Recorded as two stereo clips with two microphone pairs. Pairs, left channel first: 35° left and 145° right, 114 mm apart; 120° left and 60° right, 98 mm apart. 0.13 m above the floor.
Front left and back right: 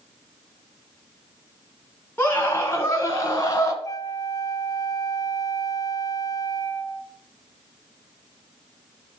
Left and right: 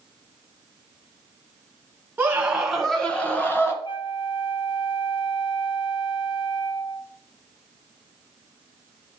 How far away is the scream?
About 1.6 m.